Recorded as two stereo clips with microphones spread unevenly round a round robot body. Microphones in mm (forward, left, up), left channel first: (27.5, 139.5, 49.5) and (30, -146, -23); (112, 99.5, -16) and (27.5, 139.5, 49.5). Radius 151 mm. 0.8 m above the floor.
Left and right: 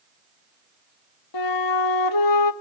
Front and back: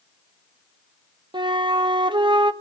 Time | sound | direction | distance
1.3 | a flute | 100° left | 1.3 m